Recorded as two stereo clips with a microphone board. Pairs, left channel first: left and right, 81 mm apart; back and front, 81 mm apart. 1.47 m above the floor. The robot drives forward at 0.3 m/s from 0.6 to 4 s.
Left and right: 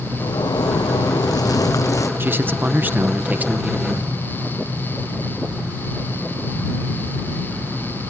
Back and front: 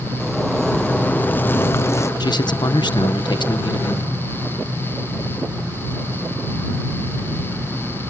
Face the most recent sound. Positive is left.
turn(degrees=-165)